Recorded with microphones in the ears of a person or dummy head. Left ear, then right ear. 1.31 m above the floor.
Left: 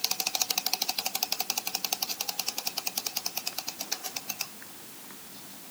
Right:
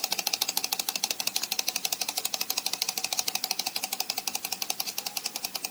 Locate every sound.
Only background noise.